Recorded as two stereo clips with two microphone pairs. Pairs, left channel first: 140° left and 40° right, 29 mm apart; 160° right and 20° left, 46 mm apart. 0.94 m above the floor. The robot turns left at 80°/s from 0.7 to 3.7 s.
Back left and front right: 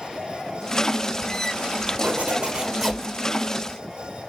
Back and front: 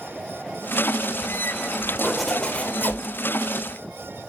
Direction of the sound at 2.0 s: 55° right.